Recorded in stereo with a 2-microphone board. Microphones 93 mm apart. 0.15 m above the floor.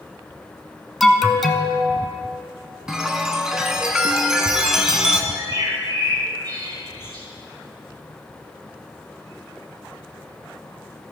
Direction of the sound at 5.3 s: 50° right (ahead or behind).